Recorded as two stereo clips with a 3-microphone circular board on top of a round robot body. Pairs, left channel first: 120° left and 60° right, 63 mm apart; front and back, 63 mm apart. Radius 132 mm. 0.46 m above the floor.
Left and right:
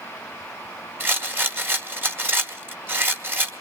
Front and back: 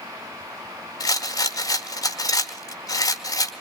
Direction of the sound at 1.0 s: 5° right.